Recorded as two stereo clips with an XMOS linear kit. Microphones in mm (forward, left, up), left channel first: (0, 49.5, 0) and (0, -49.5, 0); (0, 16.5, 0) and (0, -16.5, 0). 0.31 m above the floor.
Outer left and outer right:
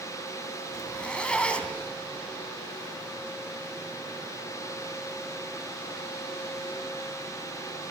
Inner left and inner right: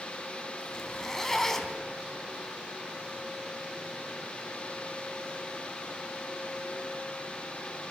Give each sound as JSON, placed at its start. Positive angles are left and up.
{"t": 0.7, "sound": "a zipper", "side_deg": 10, "distance_m": 2.5}